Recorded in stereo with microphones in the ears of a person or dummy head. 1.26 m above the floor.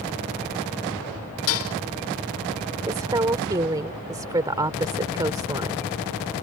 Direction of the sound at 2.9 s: 20° right (ahead or behind).